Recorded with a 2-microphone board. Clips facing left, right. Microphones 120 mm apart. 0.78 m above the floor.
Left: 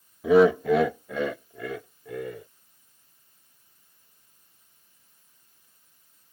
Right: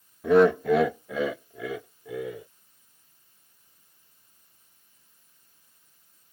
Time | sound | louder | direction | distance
0.2 | laughter | left 1 dB | 5° left (ahead or behind) | ?